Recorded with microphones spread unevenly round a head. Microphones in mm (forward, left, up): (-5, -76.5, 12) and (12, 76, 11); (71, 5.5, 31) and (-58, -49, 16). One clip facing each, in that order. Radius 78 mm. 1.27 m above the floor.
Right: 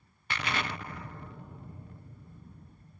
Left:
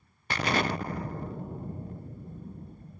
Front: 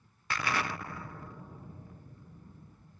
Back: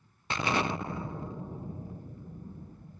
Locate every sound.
0.3 s an explosion: 135° left